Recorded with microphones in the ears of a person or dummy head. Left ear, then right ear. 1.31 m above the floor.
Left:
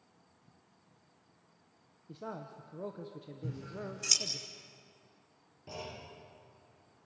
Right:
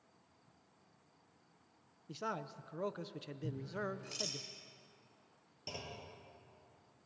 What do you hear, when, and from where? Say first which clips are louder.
2.1 s a man speaking: right 2 dB; 50° right (ahead or behind), 0.9 m
3.4 s scissors: right 2 dB; 75° left (ahead or behind), 6 m
5.7 s a clunk: left 2 dB; 85° right, 8 m